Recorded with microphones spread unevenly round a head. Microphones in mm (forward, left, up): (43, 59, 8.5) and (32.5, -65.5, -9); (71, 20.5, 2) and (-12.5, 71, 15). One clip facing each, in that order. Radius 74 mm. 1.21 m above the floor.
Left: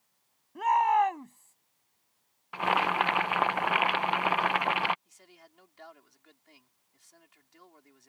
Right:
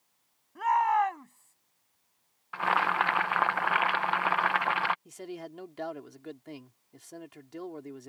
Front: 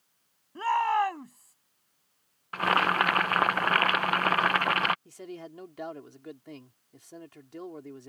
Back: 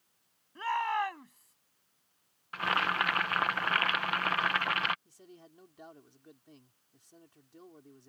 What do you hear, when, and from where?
0.6 s a shout: 20° left
2.5 s boiling: 10° left
5.0 s a man speaking: 75° right